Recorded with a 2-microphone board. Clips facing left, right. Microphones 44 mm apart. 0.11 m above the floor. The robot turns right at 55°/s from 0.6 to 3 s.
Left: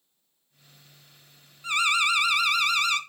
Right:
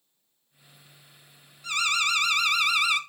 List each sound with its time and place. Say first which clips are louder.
1.6 s an alarm: left 2 dB; 125° left, 0.9 m; by 3.0 s 160° right, 0.9 m